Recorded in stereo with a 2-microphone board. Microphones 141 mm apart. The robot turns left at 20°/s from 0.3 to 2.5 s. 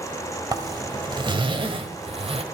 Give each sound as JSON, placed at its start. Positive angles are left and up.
{"t": 0.5, "sound": "a zipper", "azimuth_deg": -40, "distance_m": 1.5}